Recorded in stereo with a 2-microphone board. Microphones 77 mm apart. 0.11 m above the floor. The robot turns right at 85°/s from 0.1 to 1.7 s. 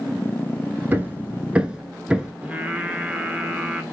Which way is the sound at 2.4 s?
15° right (ahead or behind).